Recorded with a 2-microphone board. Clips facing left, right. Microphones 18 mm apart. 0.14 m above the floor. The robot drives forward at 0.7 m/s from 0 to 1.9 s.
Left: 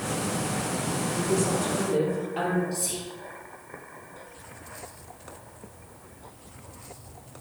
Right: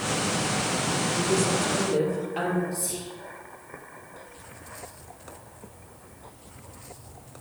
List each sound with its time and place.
1.2 s a woman speaking: 20° right (ahead or behind), 3 m; by 2.6 s 15° right (ahead or behind), 3 m
2.7 s whispering: 35° left (ahead or behind), 1.4 m